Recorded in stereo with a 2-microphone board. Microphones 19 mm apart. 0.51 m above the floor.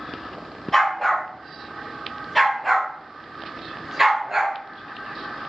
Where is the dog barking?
20° left (ahead or behind), 3.5 m; by 4.6 s 20° right (ahead or behind), 2 m.